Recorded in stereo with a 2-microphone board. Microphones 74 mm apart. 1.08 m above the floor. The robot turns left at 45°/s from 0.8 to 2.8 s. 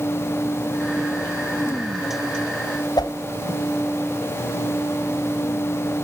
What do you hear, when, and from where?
3.0 s a whoosh: 65° left (ahead or behind), 3.5 m